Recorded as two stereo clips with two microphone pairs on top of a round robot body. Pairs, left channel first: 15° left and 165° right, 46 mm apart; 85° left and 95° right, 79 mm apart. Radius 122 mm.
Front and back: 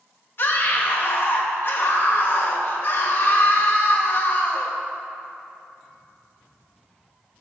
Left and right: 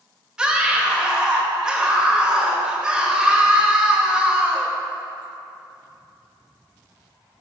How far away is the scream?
About 2.5 m.